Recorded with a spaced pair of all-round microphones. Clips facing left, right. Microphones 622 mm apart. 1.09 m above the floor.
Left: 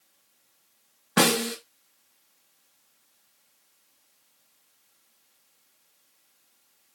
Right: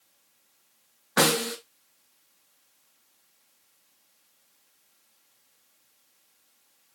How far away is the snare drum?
About 1.8 m.